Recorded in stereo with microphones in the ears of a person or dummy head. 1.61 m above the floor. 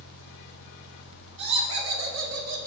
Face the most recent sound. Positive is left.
turn(degrees=-50)  # may be behind; listen again after turning